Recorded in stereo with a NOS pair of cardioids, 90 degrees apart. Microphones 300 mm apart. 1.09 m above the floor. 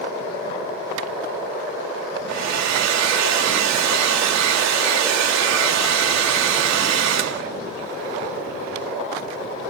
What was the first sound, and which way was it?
A hair dryer, 65° right.